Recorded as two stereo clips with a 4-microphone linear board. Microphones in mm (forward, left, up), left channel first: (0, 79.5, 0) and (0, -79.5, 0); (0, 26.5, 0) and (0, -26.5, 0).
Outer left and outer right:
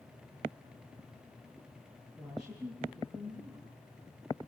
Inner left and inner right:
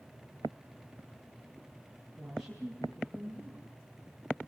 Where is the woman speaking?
Centre (ahead or behind), 8 m.